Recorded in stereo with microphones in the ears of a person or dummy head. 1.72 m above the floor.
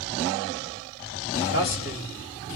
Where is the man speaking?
55° left (ahead or behind), 3 m.